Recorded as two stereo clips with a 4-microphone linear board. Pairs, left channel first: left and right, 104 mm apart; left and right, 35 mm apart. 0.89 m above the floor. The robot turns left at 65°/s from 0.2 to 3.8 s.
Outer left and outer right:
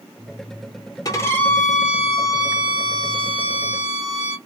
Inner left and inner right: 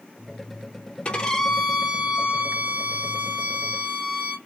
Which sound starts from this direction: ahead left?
A violin, at 1.1 s.